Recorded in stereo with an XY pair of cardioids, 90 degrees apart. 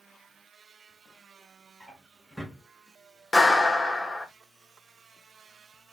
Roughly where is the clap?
Ahead.